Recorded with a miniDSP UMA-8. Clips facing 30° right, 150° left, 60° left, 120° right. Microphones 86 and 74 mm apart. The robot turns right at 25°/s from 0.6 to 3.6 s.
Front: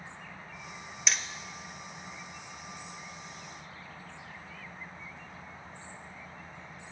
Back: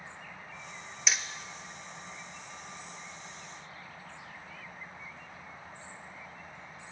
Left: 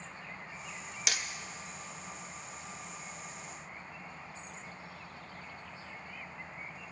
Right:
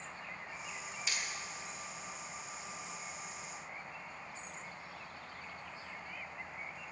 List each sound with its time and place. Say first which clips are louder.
1.1 s hammering: even, left 4 dB; 65° left, 0.5 m; by 1.2 s 70° left, 0.5 m